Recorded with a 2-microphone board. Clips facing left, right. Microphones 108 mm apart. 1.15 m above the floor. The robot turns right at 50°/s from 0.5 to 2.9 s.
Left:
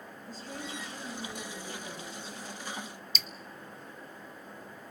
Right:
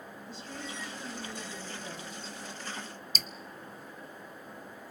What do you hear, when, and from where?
0.3 s a woman speaking: 140° left, 7.5 m; by 2.2 s 135° right, 7.5 m
3.1 s dripping: 45° right (ahead or behind), 0.6 m